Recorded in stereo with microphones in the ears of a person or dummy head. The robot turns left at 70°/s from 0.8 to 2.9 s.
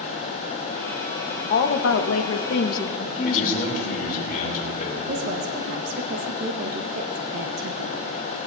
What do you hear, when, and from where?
1.5 s a woman speaking: 135° left, 1.1 m; by 3.6 s 40° left, 1.1 m
3.2 s a man speaking: 50° left (ahead or behind), 4.5 m
5.1 s a woman speaking: 50° right (ahead or behind), 1.1 m